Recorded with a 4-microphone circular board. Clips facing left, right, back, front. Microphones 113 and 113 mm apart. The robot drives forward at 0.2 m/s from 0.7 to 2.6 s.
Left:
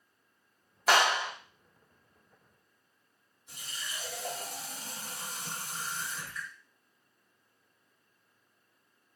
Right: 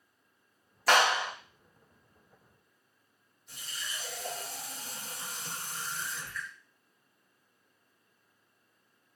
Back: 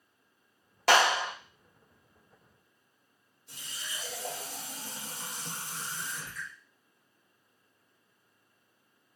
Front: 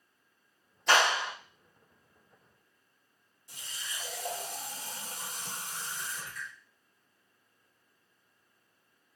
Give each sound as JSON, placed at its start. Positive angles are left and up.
{"t": 0.9, "sound": "a clap", "azimuth_deg": 175, "distance_m": 0.8}
{"t": 3.5, "sound": "a running tap", "azimuth_deg": 155, "distance_m": 1.2}